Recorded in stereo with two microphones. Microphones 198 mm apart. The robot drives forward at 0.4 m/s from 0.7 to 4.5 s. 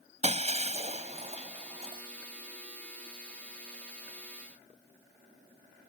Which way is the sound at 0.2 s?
35° right (ahead or behind).